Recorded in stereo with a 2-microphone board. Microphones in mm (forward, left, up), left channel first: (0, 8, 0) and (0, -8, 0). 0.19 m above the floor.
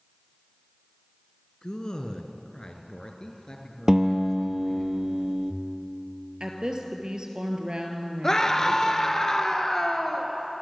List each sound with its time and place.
1.6 s a man speaking: 55° left (ahead or behind), 2.5 m; by 4.9 s 50° left (ahead or behind), 4 m
3.9 s a guitar: 45° right (ahead or behind), 1.7 m
6.4 s a woman speaking: 60° right (ahead or behind), 3.5 m
8.2 s a scream: 35° left (ahead or behind), 2.5 m